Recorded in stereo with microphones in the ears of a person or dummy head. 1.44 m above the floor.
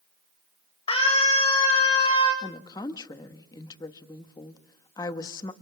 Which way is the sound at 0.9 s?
30° left (ahead or behind).